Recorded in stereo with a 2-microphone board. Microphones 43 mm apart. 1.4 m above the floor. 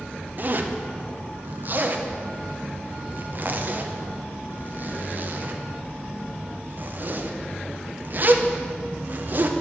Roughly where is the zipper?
Right.